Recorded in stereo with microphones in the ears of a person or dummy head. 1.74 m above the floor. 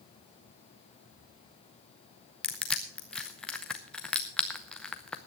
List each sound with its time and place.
2.4 s crushing: 10° left (ahead or behind), 0.9 m